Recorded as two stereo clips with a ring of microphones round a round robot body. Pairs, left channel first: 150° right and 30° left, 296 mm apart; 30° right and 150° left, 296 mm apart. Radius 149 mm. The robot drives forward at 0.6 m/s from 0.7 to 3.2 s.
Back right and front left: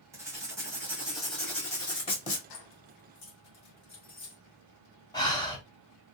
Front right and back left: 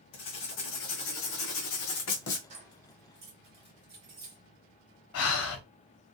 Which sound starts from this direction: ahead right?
Writing, at 0.1 s.